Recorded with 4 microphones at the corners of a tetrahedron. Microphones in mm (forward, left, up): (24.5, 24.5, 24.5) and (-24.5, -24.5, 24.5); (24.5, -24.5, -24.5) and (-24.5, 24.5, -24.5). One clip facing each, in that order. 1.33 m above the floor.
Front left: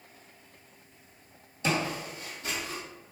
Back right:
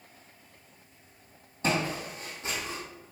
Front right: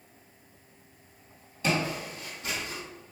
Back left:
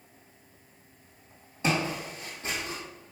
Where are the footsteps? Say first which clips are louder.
Back right 1 dB, even; 165° right, 1.9 m; by 2.8 s 170° left, 1.7 m.